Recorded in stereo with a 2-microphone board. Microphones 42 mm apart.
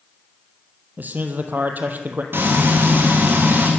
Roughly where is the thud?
I don't hear a thud.